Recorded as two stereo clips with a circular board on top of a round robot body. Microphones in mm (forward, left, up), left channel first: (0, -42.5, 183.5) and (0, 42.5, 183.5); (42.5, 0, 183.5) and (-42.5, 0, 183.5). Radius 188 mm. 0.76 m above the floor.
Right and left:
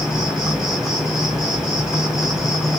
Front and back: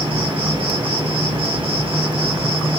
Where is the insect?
175° left, 2 m.